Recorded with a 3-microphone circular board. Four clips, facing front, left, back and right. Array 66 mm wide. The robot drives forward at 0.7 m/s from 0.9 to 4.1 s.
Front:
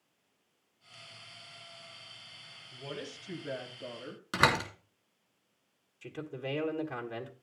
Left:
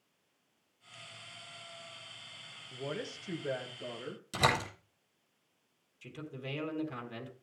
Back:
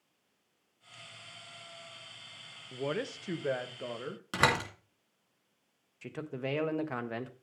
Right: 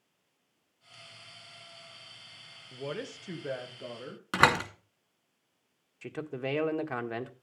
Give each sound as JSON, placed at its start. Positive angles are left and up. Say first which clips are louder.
{"t": 2.7, "sound": "a woman speaking", "louder": "right 2 dB, back 8 dB", "azimuth_deg": -170, "distance_m": 1.3}
{"t": 4.3, "sound": "a door slam", "louder": "right 6 dB, front 1 dB", "azimuth_deg": -90, "distance_m": 2.5}
{"t": 6.0, "sound": "a man speaking", "louder": "right 8 dB, back 2 dB", "azimuth_deg": -115, "distance_m": 1.4}